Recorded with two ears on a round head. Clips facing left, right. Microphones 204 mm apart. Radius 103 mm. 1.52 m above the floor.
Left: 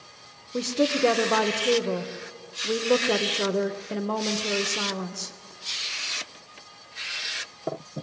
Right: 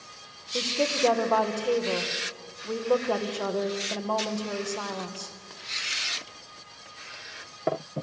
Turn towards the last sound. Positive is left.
turn(degrees=25)  # may be behind; listen again after turning